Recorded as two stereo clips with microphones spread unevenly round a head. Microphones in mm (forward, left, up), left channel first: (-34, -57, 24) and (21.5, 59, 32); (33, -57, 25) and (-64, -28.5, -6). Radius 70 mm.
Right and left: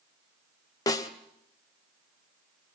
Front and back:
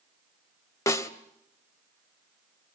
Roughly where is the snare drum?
Ahead right.